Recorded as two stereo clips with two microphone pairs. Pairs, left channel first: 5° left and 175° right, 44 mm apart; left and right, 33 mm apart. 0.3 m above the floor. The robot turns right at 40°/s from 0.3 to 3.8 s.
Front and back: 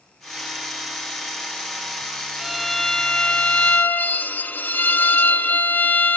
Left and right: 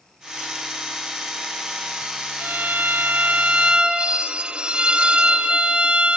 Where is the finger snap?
No finger snap in this recording.